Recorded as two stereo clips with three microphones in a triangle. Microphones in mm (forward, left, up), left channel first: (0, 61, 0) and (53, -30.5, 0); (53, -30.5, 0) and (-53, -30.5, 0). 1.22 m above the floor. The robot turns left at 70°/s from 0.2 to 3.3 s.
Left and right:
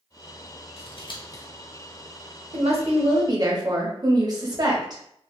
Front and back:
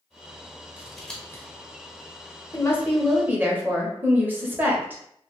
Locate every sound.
0.8 s scissors: 105° left, 0.7 m; by 1.4 s 60° left, 0.7 m
2.5 s a woman speaking: 55° right, 0.8 m; by 5.0 s 110° right, 0.8 m